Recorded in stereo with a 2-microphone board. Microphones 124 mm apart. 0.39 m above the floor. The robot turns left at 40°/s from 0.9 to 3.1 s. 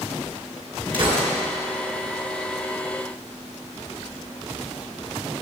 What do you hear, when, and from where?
0.9 s a gunshot: 40° right (ahead or behind), 3 m; by 1.3 s 55° right (ahead or behind), 3 m